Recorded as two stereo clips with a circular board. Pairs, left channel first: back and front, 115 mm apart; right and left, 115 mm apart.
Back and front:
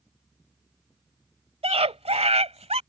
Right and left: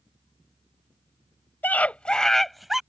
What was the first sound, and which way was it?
A scream, 15° right.